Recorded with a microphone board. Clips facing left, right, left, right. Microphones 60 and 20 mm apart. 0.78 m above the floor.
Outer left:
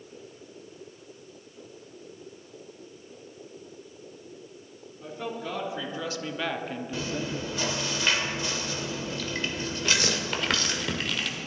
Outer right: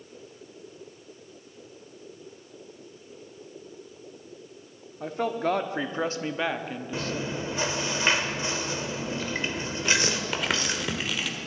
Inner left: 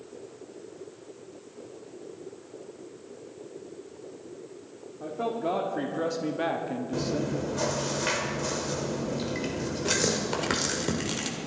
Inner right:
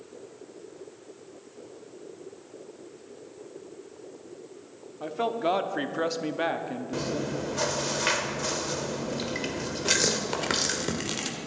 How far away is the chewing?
About 1.2 m.